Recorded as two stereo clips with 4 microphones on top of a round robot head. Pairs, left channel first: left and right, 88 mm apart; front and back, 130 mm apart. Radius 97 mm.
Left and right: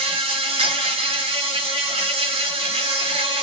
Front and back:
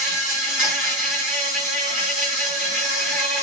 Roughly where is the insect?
Right.